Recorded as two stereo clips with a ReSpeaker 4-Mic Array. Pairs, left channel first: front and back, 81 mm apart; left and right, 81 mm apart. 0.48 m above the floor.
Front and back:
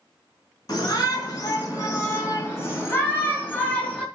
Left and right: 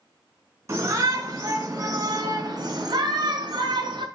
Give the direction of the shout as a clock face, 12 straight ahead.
1 o'clock.